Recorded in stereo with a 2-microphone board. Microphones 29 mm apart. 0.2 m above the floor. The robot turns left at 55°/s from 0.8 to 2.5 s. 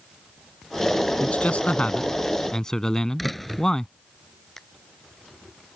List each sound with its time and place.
1.2 s a man speaking: 100° left; by 3.9 s 30° left
3.2 s a door slam: 5° left (ahead or behind)
4.6 s a finger snap: 10° left (ahead or behind)